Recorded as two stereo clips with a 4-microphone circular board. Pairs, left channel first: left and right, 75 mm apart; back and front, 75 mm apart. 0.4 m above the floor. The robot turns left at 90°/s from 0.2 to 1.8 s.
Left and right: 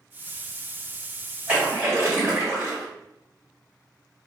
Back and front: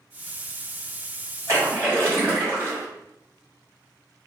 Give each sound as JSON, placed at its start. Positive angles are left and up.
{"t": 1.5, "sound": "a splash", "azimuth_deg": -20, "distance_m": 1.7}